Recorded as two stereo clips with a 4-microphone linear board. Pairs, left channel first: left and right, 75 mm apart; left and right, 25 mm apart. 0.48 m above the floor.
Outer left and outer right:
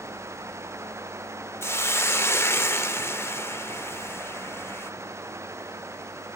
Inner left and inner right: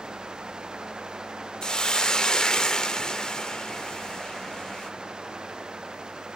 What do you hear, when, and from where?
1.6 s a hiss: 35° left (ahead or behind), 0.5 m